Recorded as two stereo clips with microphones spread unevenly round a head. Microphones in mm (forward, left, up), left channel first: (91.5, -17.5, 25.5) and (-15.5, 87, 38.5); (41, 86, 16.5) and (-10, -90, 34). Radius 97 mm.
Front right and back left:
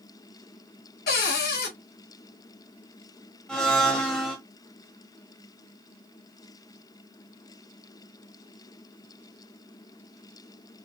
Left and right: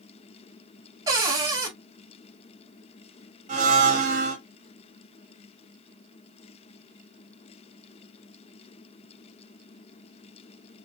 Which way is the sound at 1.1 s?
40° right.